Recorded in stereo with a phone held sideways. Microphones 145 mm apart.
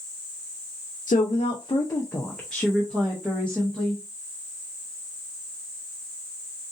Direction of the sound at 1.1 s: 70° left (ahead or behind).